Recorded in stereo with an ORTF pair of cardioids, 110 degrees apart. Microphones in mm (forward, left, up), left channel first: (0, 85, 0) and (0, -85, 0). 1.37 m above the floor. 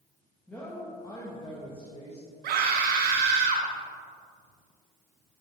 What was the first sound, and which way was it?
A woman speaking, 10° left.